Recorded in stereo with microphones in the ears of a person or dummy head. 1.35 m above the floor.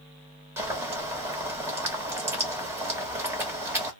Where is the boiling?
15° right (ahead or behind), 1.2 m.